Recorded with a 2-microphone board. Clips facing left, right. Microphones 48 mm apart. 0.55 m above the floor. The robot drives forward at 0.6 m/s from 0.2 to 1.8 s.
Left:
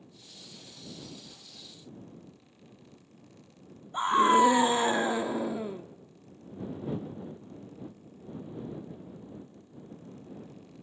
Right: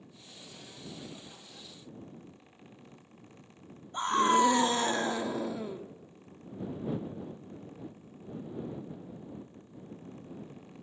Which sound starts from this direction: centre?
A scream, at 3.9 s.